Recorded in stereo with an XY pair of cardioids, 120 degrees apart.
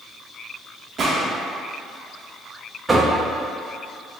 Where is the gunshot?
40° right, 0.8 m.